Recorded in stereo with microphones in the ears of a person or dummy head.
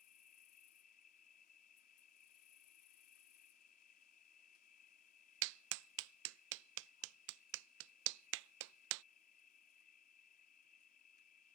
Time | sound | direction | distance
0.0 | an insect | 50° left (ahead or behind) | ?
5.4 | a clap | 70° right (ahead or behind) | ?